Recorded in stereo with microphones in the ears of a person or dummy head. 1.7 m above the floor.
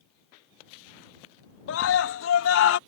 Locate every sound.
1.7 s a scream: 80° left